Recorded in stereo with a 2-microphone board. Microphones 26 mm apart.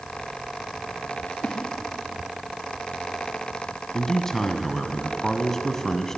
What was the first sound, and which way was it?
A splash, 80° left.